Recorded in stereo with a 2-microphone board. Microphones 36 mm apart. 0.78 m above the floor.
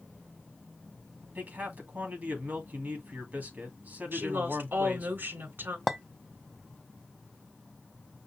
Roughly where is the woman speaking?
Right.